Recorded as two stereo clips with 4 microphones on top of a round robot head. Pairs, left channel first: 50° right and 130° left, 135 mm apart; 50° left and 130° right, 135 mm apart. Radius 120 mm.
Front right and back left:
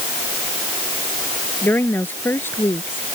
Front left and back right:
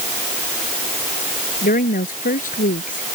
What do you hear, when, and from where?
1.6 s a woman speaking: 30° left; by 3.0 s 25° left